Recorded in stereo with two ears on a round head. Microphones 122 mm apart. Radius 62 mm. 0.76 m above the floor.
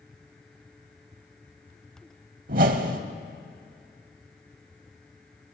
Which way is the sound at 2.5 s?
65° right (ahead or behind).